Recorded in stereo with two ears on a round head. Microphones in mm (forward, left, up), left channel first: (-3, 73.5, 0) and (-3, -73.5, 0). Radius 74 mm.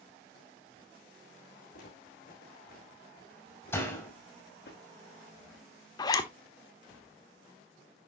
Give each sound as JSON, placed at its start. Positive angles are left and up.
{"t": 1.7, "sound": "footsteps", "side_deg": 60, "distance_m": 6.5}
{"t": 3.7, "sound": "a door slam", "side_deg": 15, "distance_m": 5.0}
{"t": 6.0, "sound": "a zipper", "side_deg": 25, "distance_m": 1.2}